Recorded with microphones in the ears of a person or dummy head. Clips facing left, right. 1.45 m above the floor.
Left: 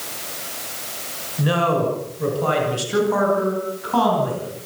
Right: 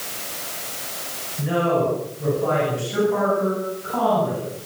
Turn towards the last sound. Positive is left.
turn(degrees=90)